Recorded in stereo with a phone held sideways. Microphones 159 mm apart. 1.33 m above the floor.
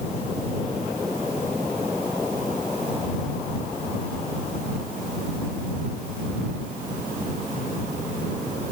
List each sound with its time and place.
Only background noise.